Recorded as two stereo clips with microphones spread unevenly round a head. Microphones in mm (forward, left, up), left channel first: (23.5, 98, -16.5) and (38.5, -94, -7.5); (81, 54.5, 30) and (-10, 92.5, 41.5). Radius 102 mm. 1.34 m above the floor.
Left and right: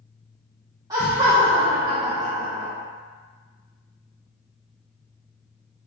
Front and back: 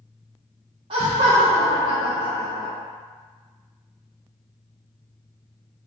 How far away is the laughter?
About 0.5 m.